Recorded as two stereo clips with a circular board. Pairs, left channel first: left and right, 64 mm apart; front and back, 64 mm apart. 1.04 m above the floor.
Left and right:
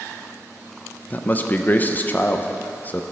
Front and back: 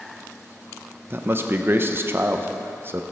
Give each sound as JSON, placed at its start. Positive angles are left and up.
{"t": 1.1, "sound": "a man speaking", "azimuth_deg": 140, "distance_m": 0.8}